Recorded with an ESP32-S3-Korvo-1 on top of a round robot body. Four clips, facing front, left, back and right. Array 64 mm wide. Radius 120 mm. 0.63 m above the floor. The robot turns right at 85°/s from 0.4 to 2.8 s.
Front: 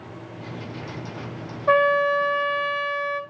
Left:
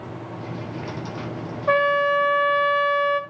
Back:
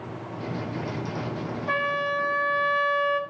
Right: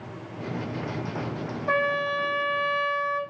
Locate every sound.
1.7 s a trumpet: 45° left, 1.6 m; by 3.2 s 140° left, 1.6 m